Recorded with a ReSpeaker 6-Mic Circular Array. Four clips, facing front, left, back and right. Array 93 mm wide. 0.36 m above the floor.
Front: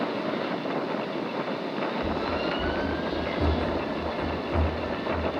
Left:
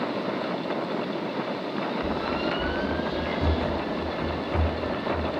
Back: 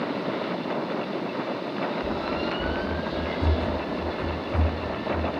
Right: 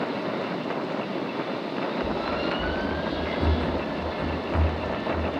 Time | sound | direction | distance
2.0 | running footsteps | 5° left | 0.5 m